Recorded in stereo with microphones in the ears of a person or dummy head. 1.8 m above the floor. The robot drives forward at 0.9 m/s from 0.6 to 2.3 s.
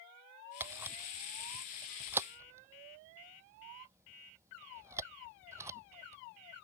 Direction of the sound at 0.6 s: 15° right (ahead or behind).